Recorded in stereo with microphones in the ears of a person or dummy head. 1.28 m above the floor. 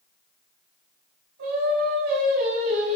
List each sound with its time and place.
1.4 s singing: 60° right (ahead or behind), 4 m